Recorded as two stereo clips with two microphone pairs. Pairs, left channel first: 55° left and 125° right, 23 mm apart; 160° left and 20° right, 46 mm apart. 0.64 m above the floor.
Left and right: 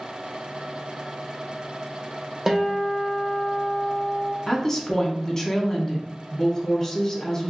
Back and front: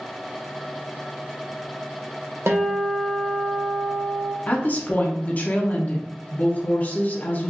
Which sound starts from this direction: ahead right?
A guitar, at 2.5 s.